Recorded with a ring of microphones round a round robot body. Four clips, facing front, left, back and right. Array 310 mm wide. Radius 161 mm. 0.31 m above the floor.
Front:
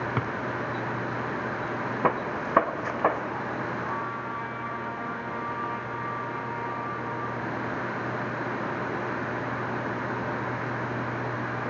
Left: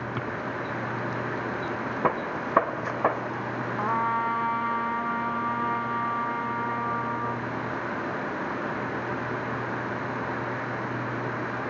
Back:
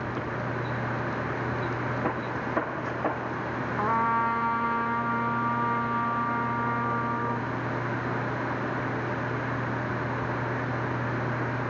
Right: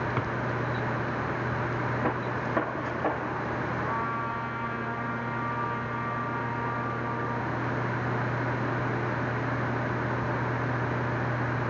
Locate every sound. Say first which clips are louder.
0.2 s a drawer: right 1 dB, front 3 dB; 10° right, 1.7 m
2.0 s a gunshot: left 2 dB, front 3 dB; 40° left, 1.4 m
3.8 s a trumpet: left 4 dB, back 7 dB; 140° left, 1.5 m